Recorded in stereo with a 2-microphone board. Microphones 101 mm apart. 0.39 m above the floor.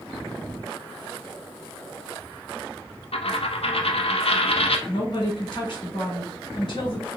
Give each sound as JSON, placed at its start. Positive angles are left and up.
{"t": 3.1, "sound": "a dropped coin", "side_deg": 70, "distance_m": 0.5}
{"t": 4.9, "sound": "a woman speaking", "side_deg": 55, "distance_m": 1.8}